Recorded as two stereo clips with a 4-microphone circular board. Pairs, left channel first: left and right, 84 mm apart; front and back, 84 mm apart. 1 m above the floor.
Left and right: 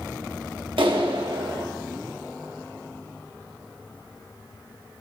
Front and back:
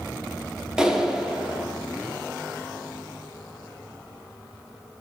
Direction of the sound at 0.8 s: 100° right.